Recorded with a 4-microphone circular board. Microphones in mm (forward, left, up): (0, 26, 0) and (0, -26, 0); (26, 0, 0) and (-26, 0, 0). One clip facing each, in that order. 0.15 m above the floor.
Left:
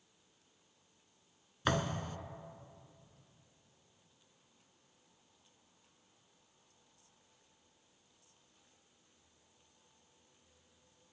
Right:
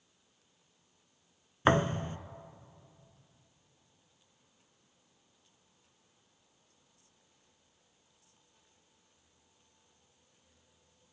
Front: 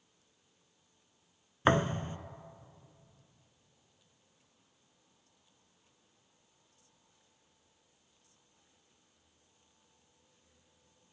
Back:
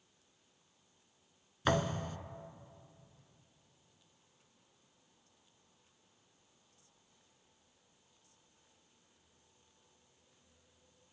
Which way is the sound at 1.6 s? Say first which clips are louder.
Right 7 dB, front 4 dB; 45° right.